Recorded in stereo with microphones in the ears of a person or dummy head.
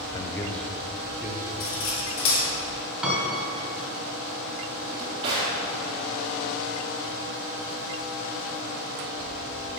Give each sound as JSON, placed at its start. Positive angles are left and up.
{"t": 0.1, "sound": "a man speaking", "side_deg": 25, "distance_m": 0.5}
{"t": 1.6, "sound": "cutlery clinking", "side_deg": 70, "distance_m": 2.0}
{"t": 3.0, "sound": "a piano", "side_deg": 0, "distance_m": 2.5}
{"t": 4.8, "sound": "a drawer", "side_deg": -30, "distance_m": 1.8}